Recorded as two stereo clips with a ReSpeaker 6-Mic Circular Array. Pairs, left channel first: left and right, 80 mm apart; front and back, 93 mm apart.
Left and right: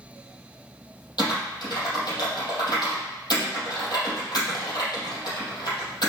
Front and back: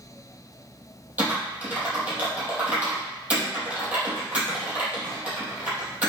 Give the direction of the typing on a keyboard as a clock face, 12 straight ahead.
8 o'clock.